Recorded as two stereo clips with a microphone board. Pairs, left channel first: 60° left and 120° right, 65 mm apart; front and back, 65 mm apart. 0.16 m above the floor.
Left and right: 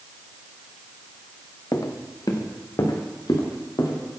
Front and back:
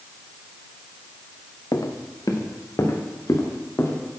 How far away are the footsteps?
About 0.8 m.